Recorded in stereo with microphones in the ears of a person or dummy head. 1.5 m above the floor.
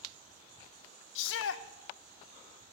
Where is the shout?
70° left (ahead or behind), 1.0 m.